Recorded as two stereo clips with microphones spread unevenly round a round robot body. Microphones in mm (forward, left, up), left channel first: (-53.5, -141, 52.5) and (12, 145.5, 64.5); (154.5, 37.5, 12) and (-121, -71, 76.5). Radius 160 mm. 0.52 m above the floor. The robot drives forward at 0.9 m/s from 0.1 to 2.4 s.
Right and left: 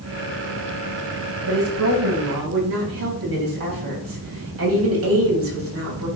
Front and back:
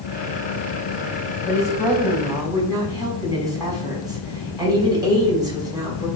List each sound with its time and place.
1.5 s a woman speaking: 110° left, 4 m; by 6.1 s 120° left, 4 m